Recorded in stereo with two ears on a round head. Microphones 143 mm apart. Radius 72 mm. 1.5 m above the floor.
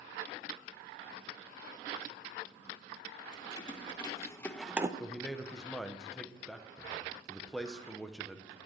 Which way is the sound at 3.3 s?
35° left (ahead or behind).